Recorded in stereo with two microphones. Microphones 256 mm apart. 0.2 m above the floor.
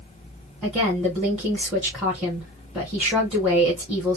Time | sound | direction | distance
0.6 | a woman speaking | centre (ahead or behind) | 2 m